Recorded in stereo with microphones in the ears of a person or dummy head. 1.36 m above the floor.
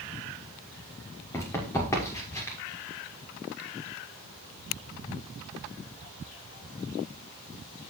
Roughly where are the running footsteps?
Centre.